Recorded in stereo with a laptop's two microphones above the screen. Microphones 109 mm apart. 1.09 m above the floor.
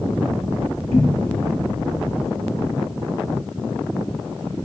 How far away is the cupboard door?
About 0.9 m.